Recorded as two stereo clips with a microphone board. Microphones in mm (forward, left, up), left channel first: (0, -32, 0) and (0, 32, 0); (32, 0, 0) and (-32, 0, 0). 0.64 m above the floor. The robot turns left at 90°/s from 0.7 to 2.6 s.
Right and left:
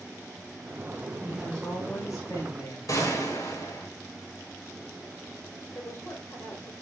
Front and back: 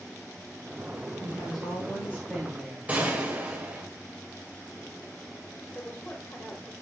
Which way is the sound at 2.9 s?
115° right.